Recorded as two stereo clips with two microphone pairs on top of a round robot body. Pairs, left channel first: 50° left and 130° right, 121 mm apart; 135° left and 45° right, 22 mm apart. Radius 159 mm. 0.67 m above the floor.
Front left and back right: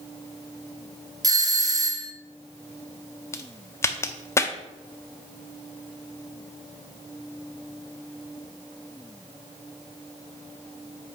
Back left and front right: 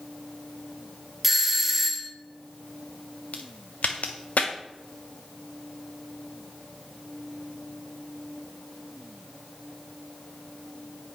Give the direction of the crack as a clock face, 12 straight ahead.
8 o'clock.